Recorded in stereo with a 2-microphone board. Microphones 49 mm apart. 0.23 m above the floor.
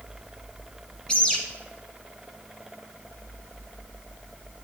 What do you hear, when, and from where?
1.1 s a bird: 15° left (ahead or behind), 1.1 m